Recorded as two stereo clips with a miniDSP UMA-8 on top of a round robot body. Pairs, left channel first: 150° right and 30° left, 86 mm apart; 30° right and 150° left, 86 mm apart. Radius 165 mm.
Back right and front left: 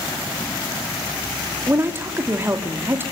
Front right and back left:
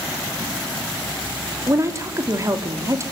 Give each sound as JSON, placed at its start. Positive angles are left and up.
{"t": 1.7, "sound": "a woman speaking", "azimuth_deg": 95, "distance_m": 3.0}